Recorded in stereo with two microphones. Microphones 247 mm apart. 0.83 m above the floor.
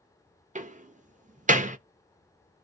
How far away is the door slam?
About 0.5 m.